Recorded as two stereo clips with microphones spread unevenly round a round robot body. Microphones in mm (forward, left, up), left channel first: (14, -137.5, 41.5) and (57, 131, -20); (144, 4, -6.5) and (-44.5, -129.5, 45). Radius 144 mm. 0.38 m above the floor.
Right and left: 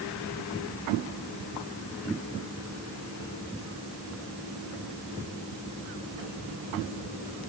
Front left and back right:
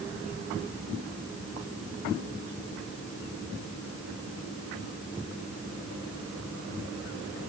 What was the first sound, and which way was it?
Only background noise.